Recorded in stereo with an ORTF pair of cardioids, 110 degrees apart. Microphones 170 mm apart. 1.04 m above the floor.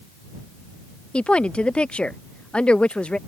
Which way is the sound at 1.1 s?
5° left.